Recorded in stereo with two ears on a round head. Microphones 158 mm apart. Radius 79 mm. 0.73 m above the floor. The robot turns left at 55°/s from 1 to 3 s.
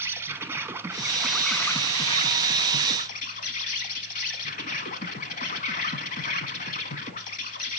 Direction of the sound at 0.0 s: 160° right.